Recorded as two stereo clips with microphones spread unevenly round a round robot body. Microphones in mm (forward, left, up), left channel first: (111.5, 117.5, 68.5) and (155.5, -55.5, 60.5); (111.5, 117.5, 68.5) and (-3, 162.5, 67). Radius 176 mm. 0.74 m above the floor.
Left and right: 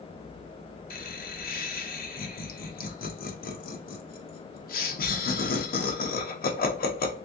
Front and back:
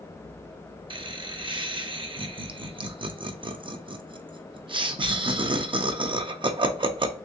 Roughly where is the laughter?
Behind left.